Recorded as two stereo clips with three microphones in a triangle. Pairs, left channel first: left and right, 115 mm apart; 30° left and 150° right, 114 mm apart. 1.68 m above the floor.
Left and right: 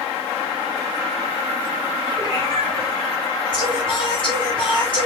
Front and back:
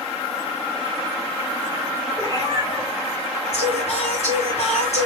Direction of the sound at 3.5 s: 45° left.